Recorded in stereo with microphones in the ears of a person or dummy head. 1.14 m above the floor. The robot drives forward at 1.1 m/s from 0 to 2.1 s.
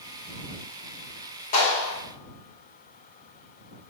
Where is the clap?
40° left (ahead or behind), 4 m; by 2.0 s 35° left (ahead or behind), 4.5 m.